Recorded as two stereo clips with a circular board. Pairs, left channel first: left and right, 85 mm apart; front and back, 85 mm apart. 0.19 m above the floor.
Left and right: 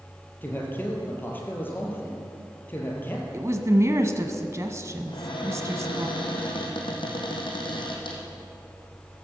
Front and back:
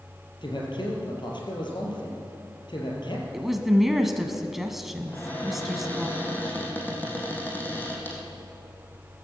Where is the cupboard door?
70° left, 3 m.